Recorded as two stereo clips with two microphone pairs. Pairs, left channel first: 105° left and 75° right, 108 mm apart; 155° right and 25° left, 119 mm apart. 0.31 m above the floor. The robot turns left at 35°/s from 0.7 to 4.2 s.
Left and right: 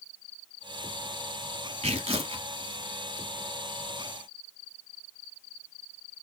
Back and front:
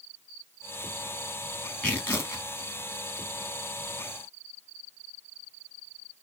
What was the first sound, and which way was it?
Tearing paper, 75° right.